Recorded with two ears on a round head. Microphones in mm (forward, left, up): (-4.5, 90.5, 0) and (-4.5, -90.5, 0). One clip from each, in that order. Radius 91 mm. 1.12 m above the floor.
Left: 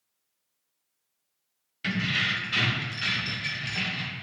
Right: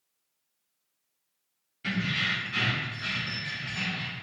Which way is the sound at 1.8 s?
55° left (ahead or behind).